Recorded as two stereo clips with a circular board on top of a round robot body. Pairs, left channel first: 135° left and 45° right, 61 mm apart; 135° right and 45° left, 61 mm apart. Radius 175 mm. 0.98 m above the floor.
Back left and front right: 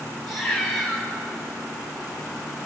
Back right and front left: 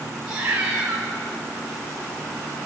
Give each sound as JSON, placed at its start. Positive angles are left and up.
{"t": 0.3, "sound": "a cat meowing", "azimuth_deg": 45, "distance_m": 2.5}